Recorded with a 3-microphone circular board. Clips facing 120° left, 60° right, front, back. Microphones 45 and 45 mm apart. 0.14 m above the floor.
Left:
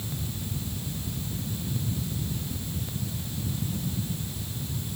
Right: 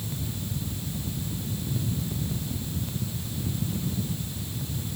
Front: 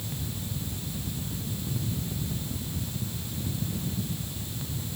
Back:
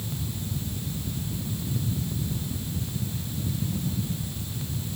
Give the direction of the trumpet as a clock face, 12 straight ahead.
No trumpet in this recording.